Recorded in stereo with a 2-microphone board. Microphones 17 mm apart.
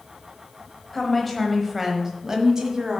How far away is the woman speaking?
About 1.2 m.